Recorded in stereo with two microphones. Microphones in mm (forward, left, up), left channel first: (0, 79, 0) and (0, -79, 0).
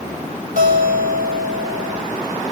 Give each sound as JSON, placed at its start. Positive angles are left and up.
{"t": 0.6, "sound": "a guitar", "side_deg": -60, "distance_m": 1.8}